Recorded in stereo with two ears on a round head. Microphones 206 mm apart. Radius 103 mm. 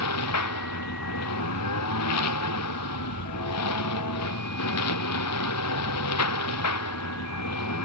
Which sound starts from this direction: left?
A lawn mower, at 0.0 s.